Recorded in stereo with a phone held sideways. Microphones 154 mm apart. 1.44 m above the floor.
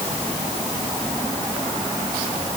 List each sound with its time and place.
Only background noise.